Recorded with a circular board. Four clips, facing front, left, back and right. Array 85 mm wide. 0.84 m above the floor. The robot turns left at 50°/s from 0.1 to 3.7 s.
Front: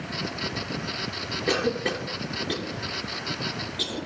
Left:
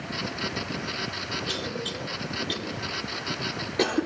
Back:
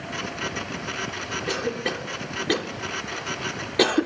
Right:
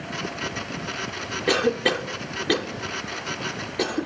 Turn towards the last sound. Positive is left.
turn(degrees=175)